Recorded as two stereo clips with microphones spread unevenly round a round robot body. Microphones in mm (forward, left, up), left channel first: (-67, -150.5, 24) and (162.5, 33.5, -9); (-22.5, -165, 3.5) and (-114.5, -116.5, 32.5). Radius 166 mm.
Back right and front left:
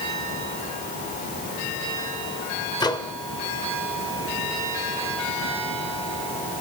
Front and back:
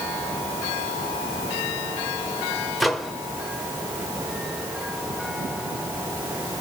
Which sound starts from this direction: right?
A microwave, at 2.8 s.